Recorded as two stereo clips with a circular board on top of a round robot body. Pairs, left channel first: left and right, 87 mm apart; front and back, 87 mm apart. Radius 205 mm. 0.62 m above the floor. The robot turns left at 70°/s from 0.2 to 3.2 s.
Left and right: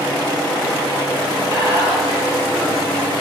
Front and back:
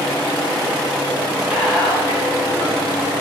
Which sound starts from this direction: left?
Whispering, at 1.5 s.